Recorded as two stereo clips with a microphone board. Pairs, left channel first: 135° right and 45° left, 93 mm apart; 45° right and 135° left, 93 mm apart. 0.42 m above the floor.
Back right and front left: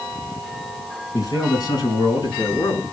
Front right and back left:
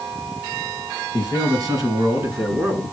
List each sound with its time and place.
1.1 s a man speaking: 175° left, 5.5 m; by 2.8 s 165° right, 4.5 m